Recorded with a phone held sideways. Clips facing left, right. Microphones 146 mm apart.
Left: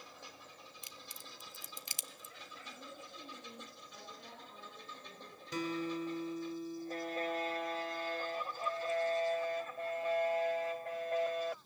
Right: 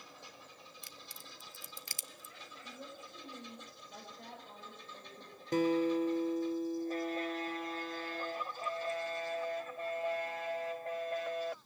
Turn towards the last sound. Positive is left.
turn(degrees=-50)  # may be behind; listen again after turning